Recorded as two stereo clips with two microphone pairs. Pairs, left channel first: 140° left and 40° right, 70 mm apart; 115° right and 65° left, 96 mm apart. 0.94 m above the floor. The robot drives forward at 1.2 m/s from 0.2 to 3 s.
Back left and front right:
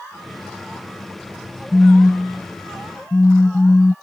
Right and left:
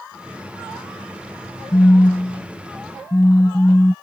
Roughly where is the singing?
No singing in this recording.